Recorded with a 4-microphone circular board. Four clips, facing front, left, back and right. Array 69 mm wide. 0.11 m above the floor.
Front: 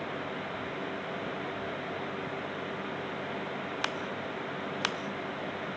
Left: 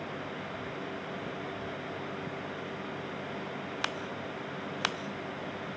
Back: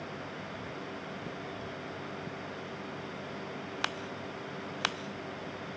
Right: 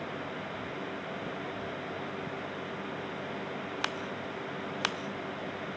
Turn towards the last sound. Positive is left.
No sound to turn to.